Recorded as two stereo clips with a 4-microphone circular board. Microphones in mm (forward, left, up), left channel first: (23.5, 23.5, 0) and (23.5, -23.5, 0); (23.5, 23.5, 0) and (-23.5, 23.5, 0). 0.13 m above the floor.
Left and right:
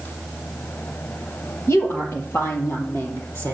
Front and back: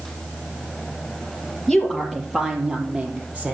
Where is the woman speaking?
80° left, 2.5 m; by 3.5 s 120° left, 3.5 m.